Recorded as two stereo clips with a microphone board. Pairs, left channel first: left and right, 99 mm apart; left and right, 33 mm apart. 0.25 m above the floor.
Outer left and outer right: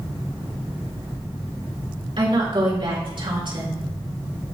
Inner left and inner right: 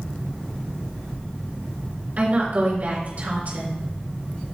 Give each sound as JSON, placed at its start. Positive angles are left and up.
{"t": 2.2, "sound": "a woman speaking", "side_deg": -60, "distance_m": 3.5}